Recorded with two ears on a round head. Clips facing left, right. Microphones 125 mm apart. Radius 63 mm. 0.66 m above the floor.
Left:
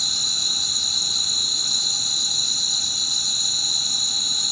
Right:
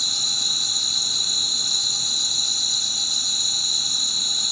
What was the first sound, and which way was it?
An insect, 70° left (ahead or behind).